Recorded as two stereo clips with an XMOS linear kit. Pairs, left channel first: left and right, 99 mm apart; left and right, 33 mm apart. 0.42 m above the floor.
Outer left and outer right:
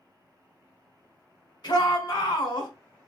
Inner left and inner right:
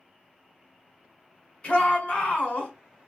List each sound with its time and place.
1.6 s a shout: 50° left (ahead or behind), 1.5 m